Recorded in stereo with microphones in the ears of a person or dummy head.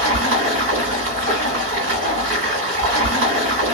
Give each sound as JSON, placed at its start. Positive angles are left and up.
{"t": 0.0, "sound": "running water", "side_deg": -40, "distance_m": 1.7}